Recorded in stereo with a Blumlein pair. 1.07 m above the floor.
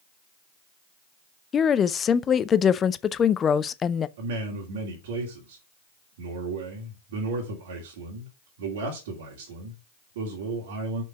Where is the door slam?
I don't hear a door slam.